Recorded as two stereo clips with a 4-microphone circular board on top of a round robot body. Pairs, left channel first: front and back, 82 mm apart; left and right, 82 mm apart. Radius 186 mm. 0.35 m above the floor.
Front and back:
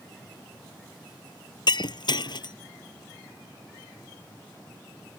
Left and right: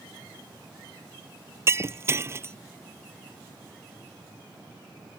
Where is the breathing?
No breathing in this recording.